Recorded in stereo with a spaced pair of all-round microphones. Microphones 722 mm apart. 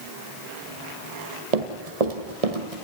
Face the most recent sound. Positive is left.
turn(degrees=-50)  # may be behind; listen again after turning